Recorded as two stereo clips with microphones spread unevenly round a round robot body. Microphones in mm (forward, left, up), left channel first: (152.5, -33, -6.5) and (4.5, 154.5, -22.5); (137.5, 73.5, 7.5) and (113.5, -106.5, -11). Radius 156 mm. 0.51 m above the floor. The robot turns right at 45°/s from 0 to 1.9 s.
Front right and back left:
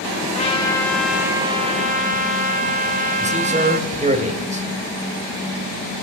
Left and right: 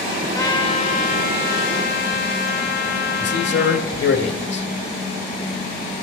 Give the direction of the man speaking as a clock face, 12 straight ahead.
10 o'clock.